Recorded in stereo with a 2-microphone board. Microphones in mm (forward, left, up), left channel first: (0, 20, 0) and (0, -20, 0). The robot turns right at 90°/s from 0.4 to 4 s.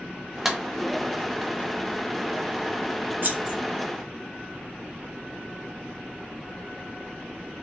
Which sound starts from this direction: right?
Scissors, at 3.2 s.